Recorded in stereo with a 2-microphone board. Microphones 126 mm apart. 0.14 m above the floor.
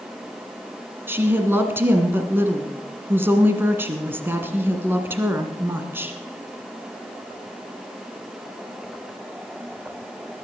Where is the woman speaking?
15° right (ahead or behind), 1.5 m.